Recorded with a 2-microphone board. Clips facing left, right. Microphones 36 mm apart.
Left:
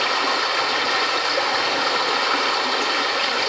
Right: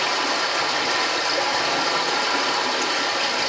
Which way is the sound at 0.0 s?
40° left (ahead or behind).